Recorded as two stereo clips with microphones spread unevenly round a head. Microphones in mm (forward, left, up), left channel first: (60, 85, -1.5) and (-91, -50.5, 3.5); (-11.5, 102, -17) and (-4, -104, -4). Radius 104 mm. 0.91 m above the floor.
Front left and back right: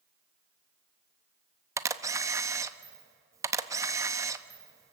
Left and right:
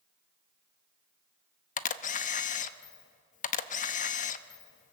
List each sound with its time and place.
1.8 s a camera shutter: 145° left, 0.7 m